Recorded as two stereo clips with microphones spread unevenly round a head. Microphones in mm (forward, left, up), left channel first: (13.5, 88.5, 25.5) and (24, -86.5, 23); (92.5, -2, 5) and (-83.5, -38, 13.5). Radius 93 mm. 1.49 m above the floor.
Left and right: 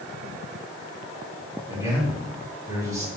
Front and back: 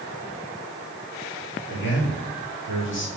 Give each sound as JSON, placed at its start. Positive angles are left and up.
{"t": 1.7, "sound": "a man speaking", "azimuth_deg": -15, "distance_m": 3.5}